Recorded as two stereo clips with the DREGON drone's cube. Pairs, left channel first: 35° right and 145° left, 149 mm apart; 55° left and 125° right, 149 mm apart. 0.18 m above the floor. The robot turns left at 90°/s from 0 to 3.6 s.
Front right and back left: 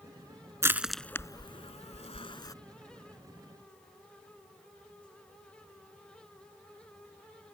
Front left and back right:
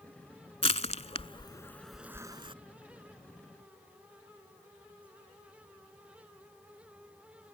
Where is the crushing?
85° left; by 2.5 s 90° right.